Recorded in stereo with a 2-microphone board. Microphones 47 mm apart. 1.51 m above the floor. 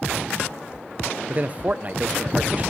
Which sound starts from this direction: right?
A man speaking, at 1.3 s.